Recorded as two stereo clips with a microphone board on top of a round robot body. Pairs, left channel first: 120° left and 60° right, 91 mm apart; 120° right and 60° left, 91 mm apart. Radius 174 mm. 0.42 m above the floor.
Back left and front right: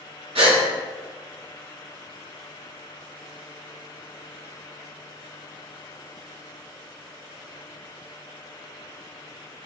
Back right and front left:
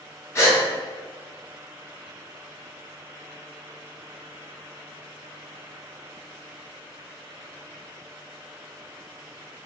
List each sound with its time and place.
0.3 s a gasp: 60° right, 1.7 m